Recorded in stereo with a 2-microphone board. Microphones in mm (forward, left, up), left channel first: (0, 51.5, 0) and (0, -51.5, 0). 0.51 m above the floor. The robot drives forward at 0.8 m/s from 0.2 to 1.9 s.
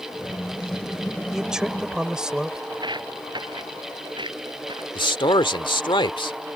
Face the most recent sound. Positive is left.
turn(degrees=50)  # may be behind; listen again after turning